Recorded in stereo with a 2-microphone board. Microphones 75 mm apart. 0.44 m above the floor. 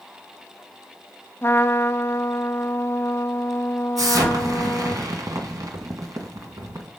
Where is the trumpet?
35° left (ahead or behind), 0.7 m.